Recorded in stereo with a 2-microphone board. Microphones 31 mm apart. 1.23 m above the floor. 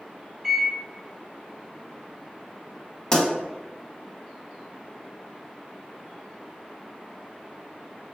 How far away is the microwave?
About 1.6 m.